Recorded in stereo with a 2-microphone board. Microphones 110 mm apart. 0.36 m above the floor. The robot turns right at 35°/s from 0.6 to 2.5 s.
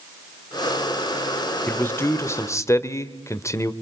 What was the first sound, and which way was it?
A man speaking, 20° left (ahead or behind).